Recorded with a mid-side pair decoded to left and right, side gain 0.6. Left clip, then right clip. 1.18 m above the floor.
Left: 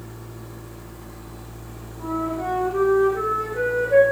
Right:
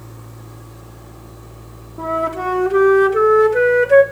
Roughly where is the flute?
Right.